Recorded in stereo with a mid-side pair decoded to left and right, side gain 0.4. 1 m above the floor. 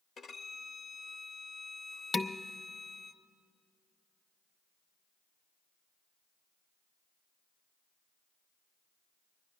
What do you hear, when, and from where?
0.2 s a violin: 60° left, 0.9 m
2.1 s dishes clattering: 35° left, 0.6 m